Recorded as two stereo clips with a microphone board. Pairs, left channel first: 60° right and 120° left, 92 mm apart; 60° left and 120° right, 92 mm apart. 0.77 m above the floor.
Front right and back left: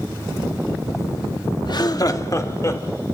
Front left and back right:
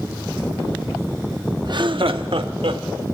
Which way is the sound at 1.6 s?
90° right.